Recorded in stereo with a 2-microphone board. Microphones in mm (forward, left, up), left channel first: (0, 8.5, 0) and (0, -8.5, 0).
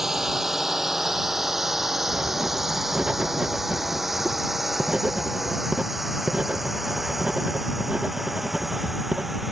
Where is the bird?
I don't hear a bird.